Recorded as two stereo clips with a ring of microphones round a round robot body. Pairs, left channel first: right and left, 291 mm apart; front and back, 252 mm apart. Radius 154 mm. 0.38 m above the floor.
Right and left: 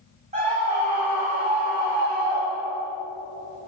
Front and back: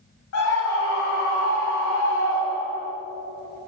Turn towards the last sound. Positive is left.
turn(degrees=40)